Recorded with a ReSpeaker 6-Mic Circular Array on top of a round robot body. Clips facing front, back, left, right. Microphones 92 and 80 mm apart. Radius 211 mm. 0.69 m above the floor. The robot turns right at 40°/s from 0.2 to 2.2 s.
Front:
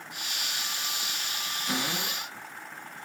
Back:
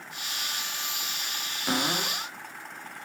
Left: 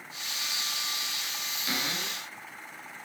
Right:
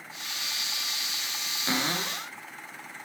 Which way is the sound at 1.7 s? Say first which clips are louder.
Back 4 dB, right 5 dB; 150° right.